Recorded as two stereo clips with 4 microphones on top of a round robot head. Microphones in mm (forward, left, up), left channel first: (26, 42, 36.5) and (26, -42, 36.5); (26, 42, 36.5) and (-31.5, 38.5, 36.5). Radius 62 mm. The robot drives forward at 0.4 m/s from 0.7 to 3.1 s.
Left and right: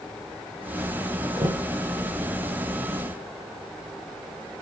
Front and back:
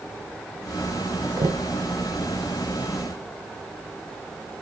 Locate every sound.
1.4 s knocking: 145° right, 0.8 m; by 1.7 s 150° right, 0.9 m